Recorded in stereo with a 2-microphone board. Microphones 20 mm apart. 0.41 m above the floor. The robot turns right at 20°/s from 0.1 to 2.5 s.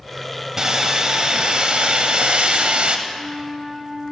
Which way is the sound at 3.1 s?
10° left (ahead or behind).